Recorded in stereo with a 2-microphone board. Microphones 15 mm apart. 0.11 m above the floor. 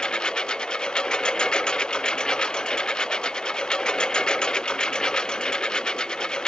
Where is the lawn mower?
65° left (ahead or behind); by 6.5 s 60° left (ahead or behind).